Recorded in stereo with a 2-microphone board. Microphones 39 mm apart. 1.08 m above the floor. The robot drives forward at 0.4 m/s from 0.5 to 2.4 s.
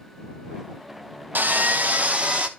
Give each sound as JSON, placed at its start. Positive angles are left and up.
{"t": 1.4, "sound": "sawing", "side_deg": -55, "distance_m": 0.5}